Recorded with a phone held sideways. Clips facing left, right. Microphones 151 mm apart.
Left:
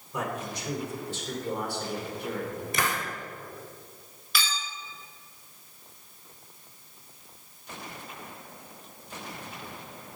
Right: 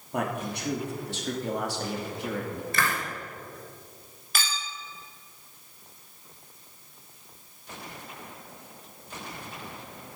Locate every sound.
0.1 s a man speaking: 55° right (ahead or behind), 3 m; by 2.6 s 80° right, 2.5 m
2.7 s a hiss: 15° left (ahead or behind), 1.8 m
4.3 s a clink: 45° right (ahead or behind), 1.5 m